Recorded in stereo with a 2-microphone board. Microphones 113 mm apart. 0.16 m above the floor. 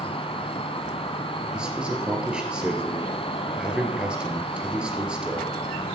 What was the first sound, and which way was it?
An insect, 65° left (ahead or behind).